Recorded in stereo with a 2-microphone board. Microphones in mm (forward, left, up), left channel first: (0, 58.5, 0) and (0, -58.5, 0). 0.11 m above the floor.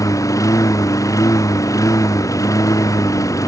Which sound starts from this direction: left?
A lawn mower, at 0.0 s.